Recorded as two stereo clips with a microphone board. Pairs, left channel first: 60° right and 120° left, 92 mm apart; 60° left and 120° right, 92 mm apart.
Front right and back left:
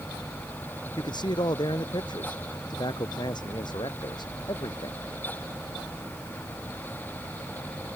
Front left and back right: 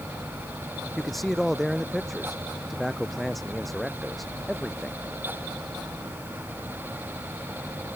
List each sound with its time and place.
1.0 s a man speaking: 30° right